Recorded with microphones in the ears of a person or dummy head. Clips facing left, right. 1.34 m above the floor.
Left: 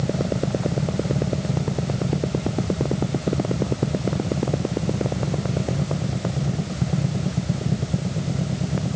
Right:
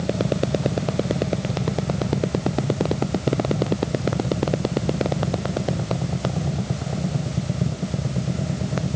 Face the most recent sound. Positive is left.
No sound to turn to.